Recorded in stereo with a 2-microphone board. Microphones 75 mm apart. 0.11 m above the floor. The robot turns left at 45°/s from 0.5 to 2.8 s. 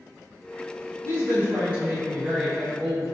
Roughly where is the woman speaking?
Right.